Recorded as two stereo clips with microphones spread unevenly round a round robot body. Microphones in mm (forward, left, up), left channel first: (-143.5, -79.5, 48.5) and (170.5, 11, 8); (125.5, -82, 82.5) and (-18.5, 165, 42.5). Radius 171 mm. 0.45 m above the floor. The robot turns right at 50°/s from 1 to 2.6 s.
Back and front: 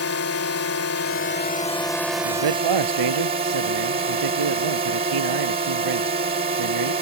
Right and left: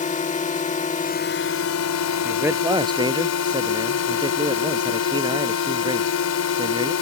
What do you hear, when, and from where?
0.0 s a drone: 125° right; by 7.0 s 45° right
2.2 s a man speaking: 25° left; by 6.9 s 45° left